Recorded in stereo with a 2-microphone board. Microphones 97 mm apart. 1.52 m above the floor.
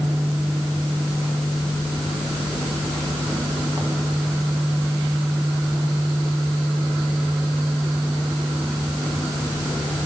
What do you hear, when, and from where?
Only background noise.